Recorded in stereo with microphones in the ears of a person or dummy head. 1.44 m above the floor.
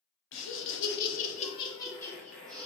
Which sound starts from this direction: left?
Laughter, at 0.3 s.